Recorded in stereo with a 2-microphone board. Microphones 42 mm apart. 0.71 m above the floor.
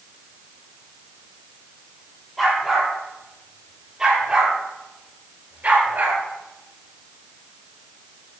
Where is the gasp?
I don't hear a gasp.